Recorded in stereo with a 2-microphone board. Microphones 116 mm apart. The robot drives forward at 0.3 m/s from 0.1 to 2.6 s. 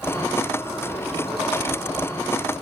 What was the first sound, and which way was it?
Only background noise.